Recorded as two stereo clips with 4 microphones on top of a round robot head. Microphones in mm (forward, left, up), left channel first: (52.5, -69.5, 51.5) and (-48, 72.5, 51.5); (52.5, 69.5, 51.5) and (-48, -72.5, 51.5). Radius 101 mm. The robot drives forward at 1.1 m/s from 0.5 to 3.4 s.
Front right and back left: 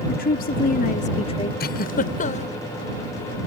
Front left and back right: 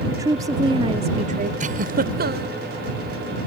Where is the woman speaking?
60° right; by 1.5 s 110° right.